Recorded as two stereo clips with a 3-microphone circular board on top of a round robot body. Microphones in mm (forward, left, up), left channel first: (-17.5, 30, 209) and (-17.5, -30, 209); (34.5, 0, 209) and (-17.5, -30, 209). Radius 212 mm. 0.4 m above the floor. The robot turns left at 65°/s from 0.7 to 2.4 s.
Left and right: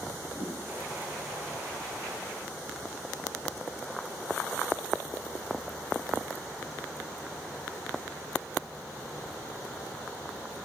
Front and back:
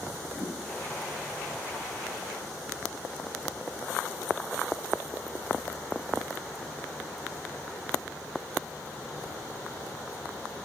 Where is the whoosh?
45° right, 3.5 m.